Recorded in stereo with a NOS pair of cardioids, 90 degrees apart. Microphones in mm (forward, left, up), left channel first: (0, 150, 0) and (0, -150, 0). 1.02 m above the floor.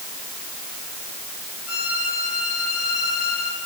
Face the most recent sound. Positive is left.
turn(degrees=50)